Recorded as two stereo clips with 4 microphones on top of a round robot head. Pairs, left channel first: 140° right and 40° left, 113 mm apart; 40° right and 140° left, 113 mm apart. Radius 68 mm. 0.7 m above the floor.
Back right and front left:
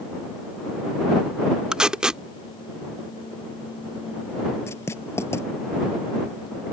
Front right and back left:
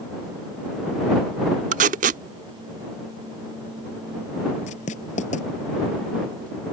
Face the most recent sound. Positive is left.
turn(degrees=-70)